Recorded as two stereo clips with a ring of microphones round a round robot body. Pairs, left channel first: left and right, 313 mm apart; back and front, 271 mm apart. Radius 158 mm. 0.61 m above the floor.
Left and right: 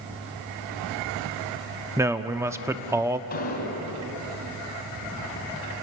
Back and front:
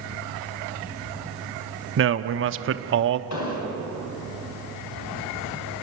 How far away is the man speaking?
About 0.9 m.